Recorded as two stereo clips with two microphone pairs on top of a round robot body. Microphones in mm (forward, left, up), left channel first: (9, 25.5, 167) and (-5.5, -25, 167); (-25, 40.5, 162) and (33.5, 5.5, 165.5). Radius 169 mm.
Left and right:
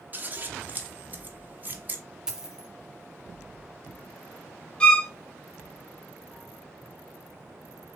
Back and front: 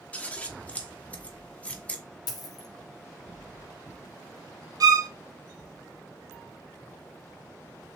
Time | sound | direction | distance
0.1 | scissors | 150° right | 1.6 m
2.3 | a dropped coin | 175° left | 0.9 m
4.8 | a violin | 5° left | 1.0 m